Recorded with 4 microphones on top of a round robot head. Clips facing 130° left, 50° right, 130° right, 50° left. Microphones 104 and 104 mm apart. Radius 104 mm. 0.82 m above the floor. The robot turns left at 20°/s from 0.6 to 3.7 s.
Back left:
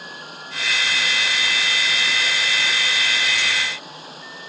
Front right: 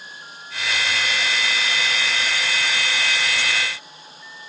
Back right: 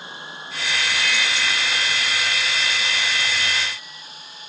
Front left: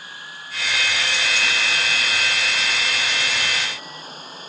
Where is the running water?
165° left; by 4.5 s 100° left.